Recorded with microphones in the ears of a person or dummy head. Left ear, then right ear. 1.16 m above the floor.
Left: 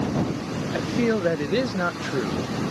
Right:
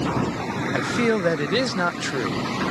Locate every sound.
0.7 s a man speaking: 30° right (ahead or behind)